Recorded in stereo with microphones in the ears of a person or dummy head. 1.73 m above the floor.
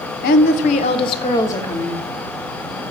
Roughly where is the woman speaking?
Left.